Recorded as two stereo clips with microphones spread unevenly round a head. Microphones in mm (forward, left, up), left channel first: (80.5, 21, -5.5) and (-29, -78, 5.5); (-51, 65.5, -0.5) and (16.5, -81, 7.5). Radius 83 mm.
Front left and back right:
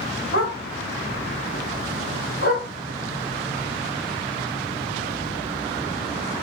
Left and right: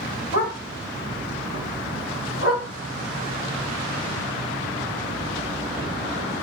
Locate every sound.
0.3 s a dog barking: 70° left, 2 m; by 2.7 s 85° left, 4 m